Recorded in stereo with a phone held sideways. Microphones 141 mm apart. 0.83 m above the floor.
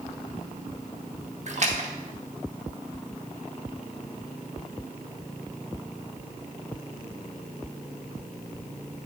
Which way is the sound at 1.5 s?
55° right (ahead or behind).